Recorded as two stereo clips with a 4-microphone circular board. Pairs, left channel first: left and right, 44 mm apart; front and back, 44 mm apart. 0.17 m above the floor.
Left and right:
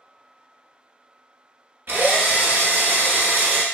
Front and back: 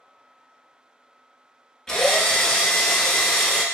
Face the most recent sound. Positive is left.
turn(degrees=-70)